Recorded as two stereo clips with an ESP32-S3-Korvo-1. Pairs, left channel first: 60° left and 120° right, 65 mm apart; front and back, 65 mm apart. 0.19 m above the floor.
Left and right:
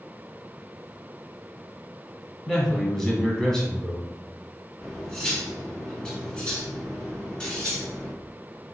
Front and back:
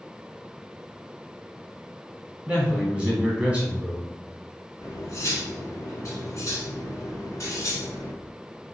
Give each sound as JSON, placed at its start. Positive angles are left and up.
{"t": 2.5, "sound": "a man speaking", "azimuth_deg": 130, "distance_m": 1.2}
{"t": 4.8, "sound": "cutlery clinking", "azimuth_deg": -10, "distance_m": 1.2}